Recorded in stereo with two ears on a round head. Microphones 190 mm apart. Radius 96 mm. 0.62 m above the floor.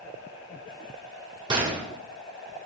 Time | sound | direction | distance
1.5 | a gunshot | 25° right (ahead or behind) | 1.6 m